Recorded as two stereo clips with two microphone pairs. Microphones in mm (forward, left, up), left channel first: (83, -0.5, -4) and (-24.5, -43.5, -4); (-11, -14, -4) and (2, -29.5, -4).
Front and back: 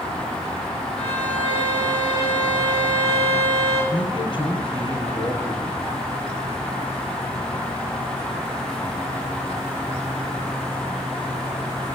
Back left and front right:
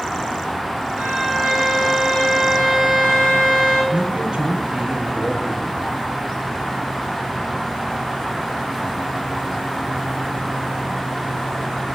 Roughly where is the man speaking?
Ahead.